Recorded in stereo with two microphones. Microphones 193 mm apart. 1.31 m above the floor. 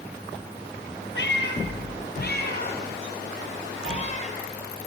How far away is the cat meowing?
About 3.5 m.